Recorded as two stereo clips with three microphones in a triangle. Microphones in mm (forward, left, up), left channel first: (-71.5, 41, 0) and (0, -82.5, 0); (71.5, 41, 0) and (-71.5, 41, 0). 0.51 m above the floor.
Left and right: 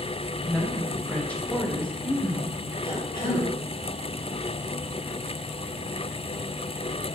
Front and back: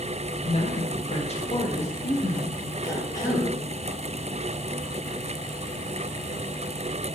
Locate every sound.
0.4 s a woman speaking: 40° left, 2.5 m
2.8 s a cough: 65° left, 4.5 m